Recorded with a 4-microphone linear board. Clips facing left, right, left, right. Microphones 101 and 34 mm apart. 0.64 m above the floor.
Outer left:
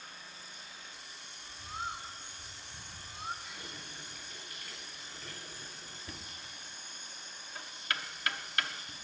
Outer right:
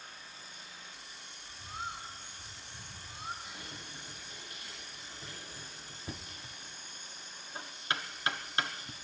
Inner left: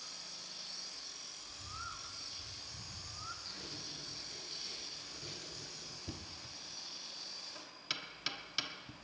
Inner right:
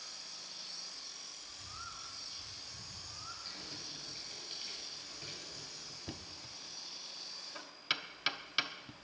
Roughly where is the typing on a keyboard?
Centre.